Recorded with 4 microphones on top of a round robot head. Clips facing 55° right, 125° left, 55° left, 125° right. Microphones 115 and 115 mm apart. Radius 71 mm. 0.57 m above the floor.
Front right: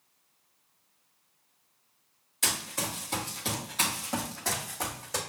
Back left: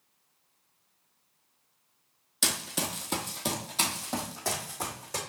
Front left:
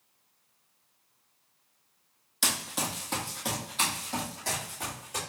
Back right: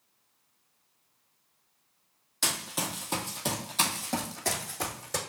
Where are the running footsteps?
130° left, 1.0 m; by 5.2 s 145° right, 1.3 m.